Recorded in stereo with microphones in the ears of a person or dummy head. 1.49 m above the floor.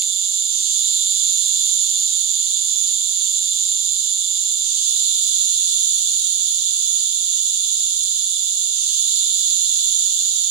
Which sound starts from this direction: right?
An insect, at 0.0 s.